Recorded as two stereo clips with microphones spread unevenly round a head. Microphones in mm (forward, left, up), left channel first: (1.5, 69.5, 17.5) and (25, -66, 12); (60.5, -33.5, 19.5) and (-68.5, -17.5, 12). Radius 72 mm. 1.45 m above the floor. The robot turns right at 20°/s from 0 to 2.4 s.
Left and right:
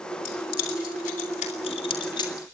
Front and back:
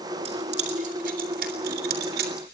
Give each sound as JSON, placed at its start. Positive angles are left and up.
{"t": 0.2, "sound": "keys jangling", "azimuth_deg": 120, "distance_m": 3.5}